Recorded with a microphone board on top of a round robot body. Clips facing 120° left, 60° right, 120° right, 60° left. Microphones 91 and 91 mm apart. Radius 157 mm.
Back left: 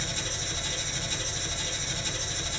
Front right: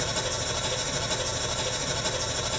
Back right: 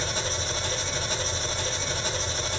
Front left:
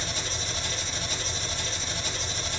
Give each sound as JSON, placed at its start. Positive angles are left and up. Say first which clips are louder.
{"t": 0.0, "sound": "an engine running", "louder": "front right 6 dB, back right 4 dB", "azimuth_deg": -70, "distance_m": 1.4}